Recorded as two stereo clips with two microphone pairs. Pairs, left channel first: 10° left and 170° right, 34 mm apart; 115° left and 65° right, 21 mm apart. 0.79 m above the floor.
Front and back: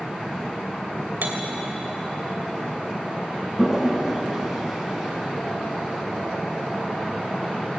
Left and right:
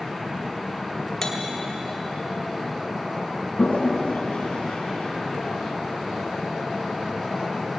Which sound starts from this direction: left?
A toilet flushing, at 3.6 s.